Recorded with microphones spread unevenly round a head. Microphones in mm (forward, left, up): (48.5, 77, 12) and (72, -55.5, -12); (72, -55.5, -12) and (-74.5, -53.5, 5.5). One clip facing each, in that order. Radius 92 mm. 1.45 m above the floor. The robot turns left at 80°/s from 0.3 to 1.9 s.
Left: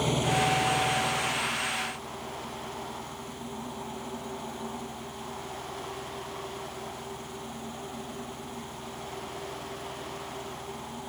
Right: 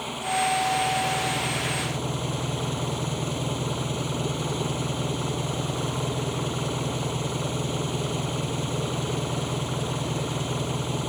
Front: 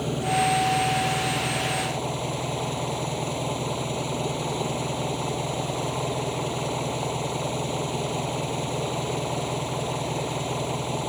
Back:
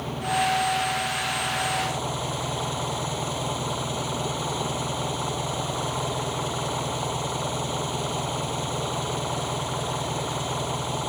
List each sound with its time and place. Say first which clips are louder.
0.0 s an engine running: even, front 2 dB; 55° left; by 11.1 s 75° right